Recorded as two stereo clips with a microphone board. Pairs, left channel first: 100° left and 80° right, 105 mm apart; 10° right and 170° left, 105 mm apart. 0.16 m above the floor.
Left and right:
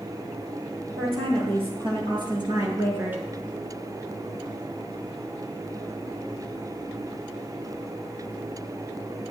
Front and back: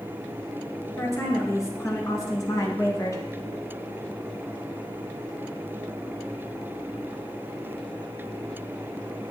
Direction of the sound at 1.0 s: 70° right.